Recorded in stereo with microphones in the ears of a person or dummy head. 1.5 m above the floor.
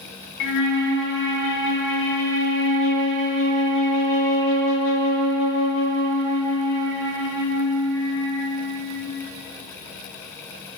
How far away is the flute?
About 0.7 m.